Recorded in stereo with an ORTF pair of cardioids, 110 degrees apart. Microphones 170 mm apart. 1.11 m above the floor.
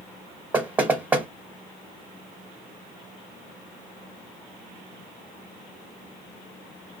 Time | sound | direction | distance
0.5 | knocking | 10° right | 0.8 m